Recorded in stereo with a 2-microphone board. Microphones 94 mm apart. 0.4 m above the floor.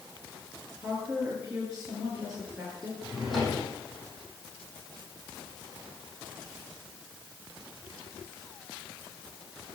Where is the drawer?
Centre (ahead or behind), 6.5 m.